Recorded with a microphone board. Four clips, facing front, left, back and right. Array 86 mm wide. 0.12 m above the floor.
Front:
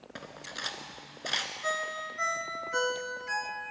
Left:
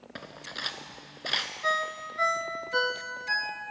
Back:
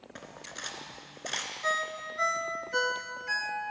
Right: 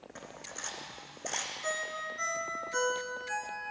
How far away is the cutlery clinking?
About 0.8 m.